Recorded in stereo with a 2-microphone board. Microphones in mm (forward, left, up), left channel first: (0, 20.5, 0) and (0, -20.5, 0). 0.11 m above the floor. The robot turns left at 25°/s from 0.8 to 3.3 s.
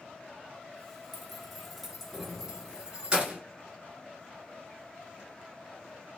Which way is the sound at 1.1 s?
5° left (ahead or behind).